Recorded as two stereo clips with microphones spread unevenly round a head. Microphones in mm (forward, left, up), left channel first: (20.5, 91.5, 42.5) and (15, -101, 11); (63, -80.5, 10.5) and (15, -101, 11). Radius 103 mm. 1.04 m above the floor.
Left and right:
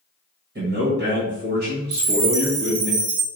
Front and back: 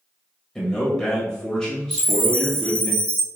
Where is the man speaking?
60° right, 1.2 m.